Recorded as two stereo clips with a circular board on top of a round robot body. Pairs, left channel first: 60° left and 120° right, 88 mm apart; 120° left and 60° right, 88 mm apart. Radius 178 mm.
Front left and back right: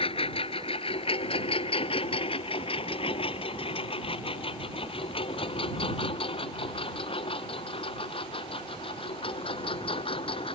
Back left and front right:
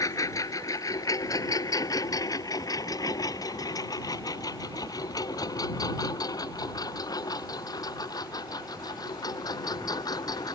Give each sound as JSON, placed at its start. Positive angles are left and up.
{"t": 0.0, "sound": "a lawn mower", "azimuth_deg": 65}